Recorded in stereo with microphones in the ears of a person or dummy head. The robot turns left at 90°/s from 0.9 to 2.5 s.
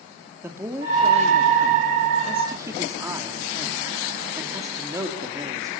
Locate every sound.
0.4 s a man speaking: 15° right, 2.5 m; by 5.7 s 160° right, 2.5 m